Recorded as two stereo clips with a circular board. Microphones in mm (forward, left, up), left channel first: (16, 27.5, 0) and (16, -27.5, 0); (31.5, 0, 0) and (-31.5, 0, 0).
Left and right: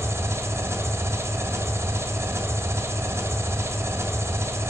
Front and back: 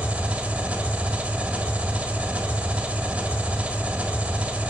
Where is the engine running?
110° right, 1.5 m.